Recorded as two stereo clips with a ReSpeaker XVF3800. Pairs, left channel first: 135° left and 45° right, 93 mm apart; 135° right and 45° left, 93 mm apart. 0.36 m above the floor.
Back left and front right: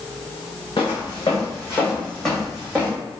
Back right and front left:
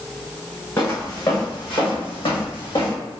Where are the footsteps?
170° left, 1.5 m; by 3.0 s 115° right, 1.2 m.